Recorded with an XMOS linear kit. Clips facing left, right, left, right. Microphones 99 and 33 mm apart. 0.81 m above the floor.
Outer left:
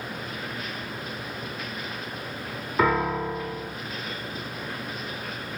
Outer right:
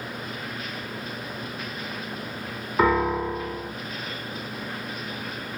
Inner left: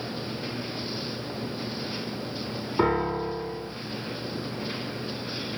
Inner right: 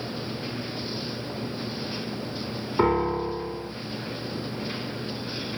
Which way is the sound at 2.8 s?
10° right (ahead or behind).